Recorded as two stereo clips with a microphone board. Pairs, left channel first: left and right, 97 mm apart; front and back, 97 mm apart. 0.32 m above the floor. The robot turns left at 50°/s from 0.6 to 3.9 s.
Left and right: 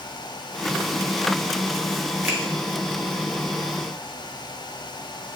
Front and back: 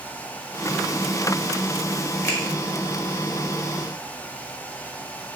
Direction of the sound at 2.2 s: 40° right.